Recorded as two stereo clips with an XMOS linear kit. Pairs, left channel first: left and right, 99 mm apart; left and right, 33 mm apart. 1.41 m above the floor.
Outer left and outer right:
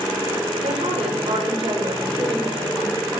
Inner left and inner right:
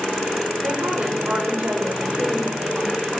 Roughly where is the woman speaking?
Right.